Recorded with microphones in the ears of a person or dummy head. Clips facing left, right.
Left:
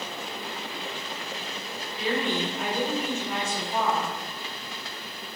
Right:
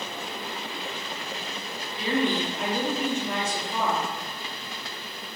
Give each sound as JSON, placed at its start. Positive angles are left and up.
{"t": 2.0, "sound": "a woman speaking", "side_deg": -45, "distance_m": 1.2}